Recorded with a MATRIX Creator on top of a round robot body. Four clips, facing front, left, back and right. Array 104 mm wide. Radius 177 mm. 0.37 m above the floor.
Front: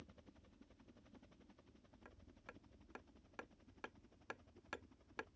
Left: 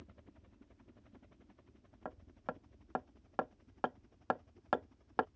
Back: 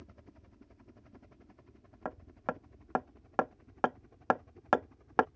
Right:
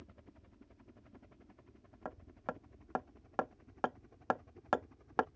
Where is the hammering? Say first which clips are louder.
Right 1 dB, back 25 dB; 175° right.